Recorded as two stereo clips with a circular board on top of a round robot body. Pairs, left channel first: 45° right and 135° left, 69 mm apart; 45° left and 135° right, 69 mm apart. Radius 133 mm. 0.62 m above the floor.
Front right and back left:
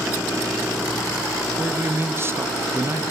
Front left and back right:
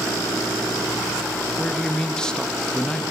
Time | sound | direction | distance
1.6 | a man speaking | 120° left | 0.6 m